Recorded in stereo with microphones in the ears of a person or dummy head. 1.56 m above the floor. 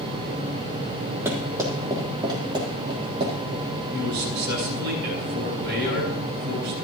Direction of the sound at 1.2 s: 15° right (ahead or behind).